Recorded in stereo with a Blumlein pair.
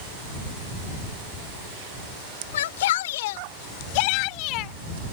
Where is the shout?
60° left; by 4.7 s 40° left.